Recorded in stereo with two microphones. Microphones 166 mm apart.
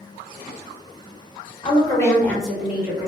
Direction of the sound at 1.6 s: 30° left (ahead or behind).